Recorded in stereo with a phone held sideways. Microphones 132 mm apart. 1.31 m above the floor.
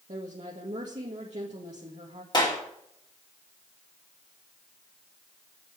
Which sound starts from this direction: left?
A clap, at 2.3 s.